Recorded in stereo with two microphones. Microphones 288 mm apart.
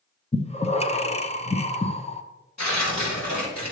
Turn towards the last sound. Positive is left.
turn(degrees=70)  # may be behind; listen again after turning